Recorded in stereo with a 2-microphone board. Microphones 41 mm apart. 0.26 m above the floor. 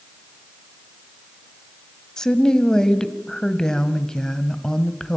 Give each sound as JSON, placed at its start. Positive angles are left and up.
{"t": 2.2, "sound": "a woman speaking", "side_deg": 15, "distance_m": 1.3}